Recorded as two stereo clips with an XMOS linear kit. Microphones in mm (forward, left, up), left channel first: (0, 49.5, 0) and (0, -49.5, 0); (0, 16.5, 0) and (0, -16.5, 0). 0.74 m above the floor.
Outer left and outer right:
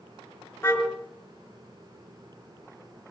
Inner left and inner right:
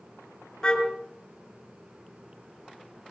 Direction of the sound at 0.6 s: 25° left (ahead or behind).